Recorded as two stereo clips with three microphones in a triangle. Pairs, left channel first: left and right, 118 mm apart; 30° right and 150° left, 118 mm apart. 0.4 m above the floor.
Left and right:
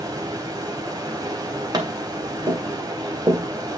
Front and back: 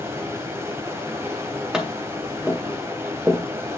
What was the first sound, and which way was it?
Running water, 145° right.